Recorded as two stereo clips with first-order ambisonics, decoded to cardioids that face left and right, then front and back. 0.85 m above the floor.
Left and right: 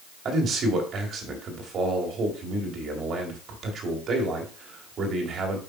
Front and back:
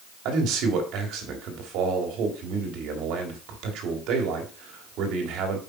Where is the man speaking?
150° right, 2 m.